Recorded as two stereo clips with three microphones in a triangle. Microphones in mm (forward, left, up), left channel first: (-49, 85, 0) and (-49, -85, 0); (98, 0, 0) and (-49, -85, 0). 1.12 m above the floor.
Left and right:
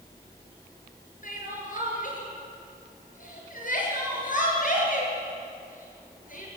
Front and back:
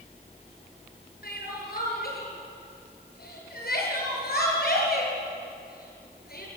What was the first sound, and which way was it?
Crying, 55° left.